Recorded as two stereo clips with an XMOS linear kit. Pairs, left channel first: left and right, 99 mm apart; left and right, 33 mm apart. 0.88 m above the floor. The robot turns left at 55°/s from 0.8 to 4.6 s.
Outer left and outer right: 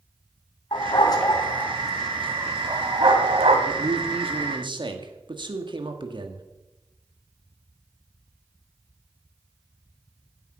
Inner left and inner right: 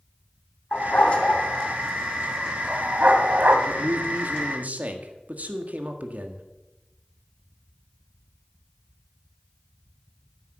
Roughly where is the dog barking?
Left.